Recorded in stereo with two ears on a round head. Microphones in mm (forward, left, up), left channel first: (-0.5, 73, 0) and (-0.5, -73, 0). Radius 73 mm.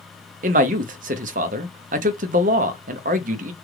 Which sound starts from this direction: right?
A man speaking, at 0.4 s.